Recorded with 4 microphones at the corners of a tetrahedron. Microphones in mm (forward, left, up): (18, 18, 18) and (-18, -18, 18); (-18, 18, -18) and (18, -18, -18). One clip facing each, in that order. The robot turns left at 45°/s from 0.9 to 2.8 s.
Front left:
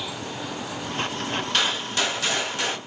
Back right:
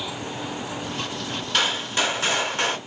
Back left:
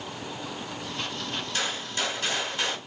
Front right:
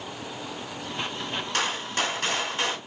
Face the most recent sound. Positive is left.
turn(degrees=-100)